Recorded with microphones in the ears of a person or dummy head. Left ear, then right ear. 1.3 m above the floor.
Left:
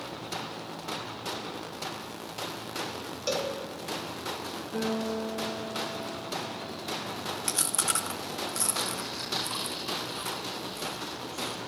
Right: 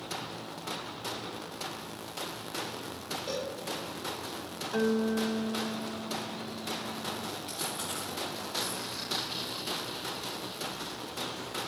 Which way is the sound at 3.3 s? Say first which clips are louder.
Left 7 dB; 60° left (ahead or behind).